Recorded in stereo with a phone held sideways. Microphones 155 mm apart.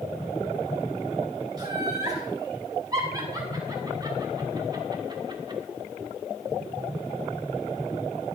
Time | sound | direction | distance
1.6 | laughter | 25° right (ahead or behind) | 7.5 m